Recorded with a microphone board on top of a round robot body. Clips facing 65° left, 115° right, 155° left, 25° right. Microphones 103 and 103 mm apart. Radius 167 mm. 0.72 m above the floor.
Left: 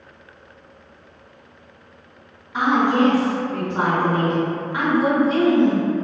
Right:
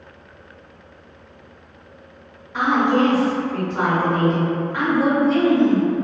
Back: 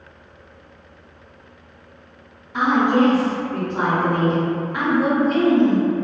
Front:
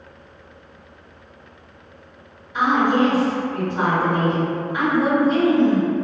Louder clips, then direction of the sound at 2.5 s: Even, back 1 dB; 135° left.